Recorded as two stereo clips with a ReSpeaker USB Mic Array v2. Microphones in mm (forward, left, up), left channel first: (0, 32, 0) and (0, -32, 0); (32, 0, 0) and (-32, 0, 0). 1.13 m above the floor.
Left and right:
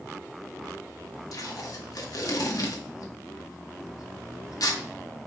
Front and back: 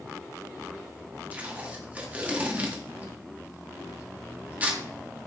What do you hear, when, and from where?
1.3 s tape being pulled: 115° left, 1.6 m